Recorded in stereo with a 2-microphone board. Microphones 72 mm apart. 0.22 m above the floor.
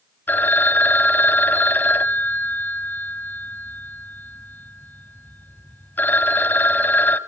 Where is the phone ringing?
25° left (ahead or behind), 0.8 m.